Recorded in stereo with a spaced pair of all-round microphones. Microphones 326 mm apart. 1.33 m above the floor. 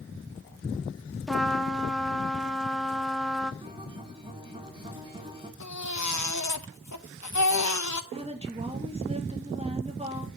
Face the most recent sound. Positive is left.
turn(degrees=-20)  # may be behind; listen again after turning